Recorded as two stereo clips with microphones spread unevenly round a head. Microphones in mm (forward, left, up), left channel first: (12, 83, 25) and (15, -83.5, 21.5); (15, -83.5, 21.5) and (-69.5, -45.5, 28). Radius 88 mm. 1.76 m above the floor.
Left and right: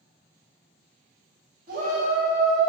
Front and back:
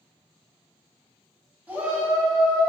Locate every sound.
1.7 s a shout: 135° right, 1.2 m; by 2.7 s 100° right, 0.8 m